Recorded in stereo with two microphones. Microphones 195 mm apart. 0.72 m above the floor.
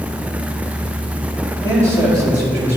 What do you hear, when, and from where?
1.6 s a man speaking: 25° right (ahead or behind), 3 m; by 2.8 s 35° right (ahead or behind), 3.5 m